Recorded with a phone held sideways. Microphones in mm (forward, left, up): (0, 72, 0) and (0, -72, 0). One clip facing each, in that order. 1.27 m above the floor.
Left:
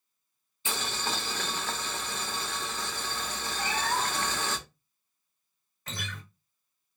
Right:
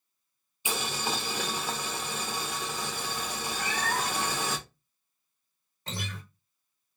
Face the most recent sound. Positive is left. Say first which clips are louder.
# right 2 dB
turn(degrees=-30)  # may be behind; listen again after turning